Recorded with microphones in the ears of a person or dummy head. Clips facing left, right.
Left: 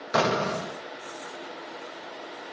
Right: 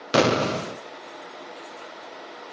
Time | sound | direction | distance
0.1 | an explosion | 40° right (ahead or behind) | 0.8 m